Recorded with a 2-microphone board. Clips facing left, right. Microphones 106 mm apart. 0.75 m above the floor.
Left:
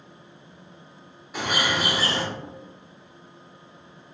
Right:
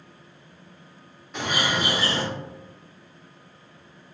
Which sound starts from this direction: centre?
A bird, at 1.3 s.